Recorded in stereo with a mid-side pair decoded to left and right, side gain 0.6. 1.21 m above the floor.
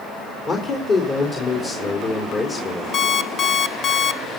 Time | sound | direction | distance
0.5 | a man speaking | 45° left | 3.5 m
2.9 | an alarm clock | 40° left | 1.2 m